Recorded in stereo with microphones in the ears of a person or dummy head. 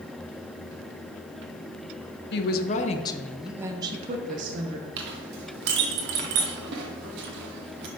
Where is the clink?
65° right (ahead or behind), 1.3 m.